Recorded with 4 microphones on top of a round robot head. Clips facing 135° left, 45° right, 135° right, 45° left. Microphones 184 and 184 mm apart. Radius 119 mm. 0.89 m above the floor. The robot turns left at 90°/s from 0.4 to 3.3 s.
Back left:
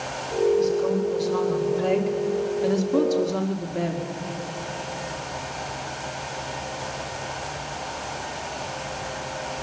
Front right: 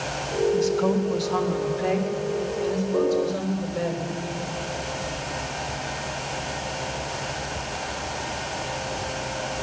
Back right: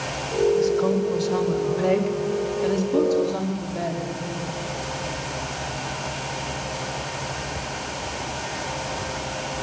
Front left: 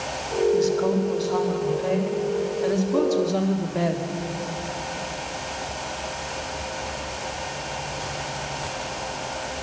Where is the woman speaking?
Straight ahead, 2 m; by 4.1 s 110° left, 2 m.